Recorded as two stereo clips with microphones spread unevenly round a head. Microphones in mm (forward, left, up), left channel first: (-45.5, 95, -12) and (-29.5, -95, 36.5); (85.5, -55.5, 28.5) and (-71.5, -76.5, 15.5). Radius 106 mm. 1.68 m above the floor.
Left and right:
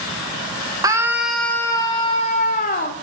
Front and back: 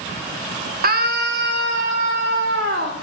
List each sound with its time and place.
0.8 s a scream: 150° right, 1.1 m; by 2.9 s 140° left, 1.5 m